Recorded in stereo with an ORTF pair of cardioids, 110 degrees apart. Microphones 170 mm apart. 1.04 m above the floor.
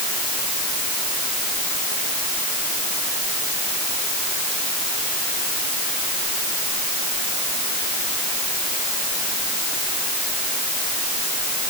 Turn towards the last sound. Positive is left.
No sound to turn to.